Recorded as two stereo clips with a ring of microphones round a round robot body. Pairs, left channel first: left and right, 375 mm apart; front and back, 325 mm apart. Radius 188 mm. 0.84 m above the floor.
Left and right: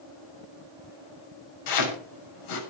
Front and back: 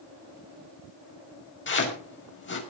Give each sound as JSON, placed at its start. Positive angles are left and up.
{"t": 1.7, "sound": "chopping", "azimuth_deg": 55, "distance_m": 6.5}